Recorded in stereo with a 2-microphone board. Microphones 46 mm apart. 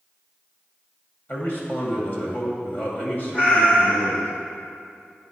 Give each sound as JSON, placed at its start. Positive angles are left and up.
{"t": 1.3, "sound": "a man speaking", "side_deg": 50, "distance_m": 1.9}
{"t": 3.3, "sound": "a cat meowing", "side_deg": 30, "distance_m": 1.7}